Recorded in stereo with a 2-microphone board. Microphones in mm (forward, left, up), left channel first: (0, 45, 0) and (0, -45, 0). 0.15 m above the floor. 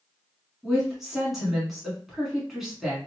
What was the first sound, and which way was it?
A woman speaking, 5° right (ahead or behind).